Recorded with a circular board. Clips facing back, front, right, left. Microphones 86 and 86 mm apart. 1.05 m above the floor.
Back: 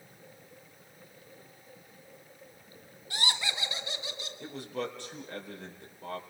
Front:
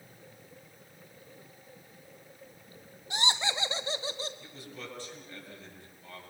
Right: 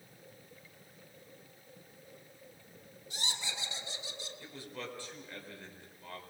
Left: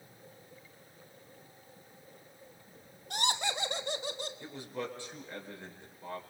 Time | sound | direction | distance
3.1 | laughter | 70° left | 1.4 m
4.4 | a man speaking | 160° left | 4.5 m